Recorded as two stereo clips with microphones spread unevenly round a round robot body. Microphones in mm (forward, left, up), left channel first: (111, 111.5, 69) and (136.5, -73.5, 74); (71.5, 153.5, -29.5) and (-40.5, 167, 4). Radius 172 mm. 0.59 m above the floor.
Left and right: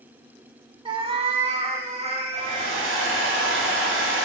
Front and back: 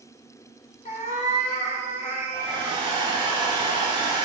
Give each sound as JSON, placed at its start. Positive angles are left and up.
{"t": 0.8, "sound": "a cat meowing", "azimuth_deg": -25, "distance_m": 0.6}
{"t": 2.3, "sound": "a hair dryer", "azimuth_deg": -85, "distance_m": 1.4}